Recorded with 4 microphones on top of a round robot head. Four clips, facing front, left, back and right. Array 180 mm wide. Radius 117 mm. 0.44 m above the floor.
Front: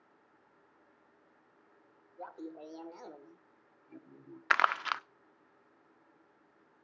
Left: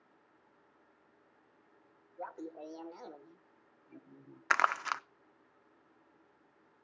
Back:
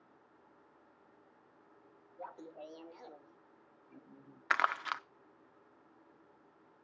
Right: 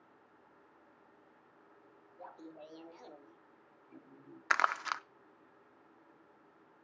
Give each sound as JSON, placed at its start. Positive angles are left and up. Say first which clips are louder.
{"t": 2.2, "sound": "laughter", "louder": "left 7 dB, front 3 dB", "azimuth_deg": 65, "distance_m": 2.0}
{"t": 4.5, "sound": "crumpling", "louder": "left 2 dB, front 4 dB", "azimuth_deg": 30, "distance_m": 0.7}